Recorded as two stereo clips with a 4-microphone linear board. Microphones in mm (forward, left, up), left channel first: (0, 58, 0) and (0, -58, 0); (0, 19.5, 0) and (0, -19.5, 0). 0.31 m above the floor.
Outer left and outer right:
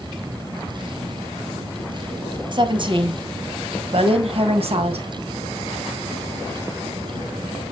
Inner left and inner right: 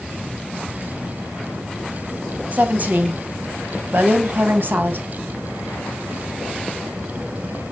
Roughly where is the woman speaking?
Right.